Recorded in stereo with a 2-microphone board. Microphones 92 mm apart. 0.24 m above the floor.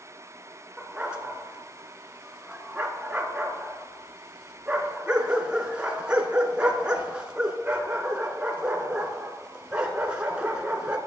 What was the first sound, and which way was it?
A dog barking, 10° right (ahead or behind).